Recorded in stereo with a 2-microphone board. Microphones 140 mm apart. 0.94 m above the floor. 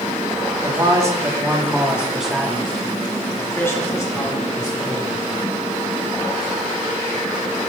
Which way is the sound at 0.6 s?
30° right (ahead or behind).